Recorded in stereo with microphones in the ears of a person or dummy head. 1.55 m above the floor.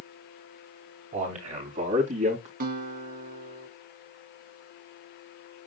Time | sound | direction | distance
1.1 | a man speaking | 35° right (ahead or behind) | 4 m
2.6 | a guitar | 45° right (ahead or behind) | 3 m